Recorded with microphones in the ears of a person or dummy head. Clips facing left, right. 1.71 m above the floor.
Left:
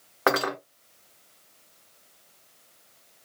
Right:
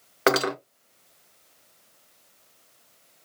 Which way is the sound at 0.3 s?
30° right (ahead or behind).